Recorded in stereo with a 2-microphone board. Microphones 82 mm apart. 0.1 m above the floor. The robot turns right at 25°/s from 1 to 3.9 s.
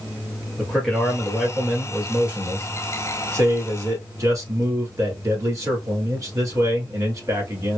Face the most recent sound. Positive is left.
turn(degrees=-115)